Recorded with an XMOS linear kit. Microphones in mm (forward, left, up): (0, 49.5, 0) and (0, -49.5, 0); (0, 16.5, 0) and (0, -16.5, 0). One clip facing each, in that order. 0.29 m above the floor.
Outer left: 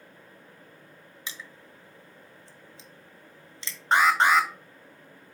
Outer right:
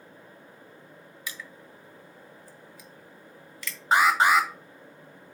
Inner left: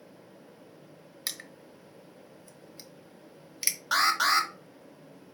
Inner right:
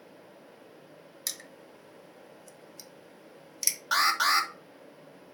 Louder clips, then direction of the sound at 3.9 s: Even, even; 5° right (ahead or behind).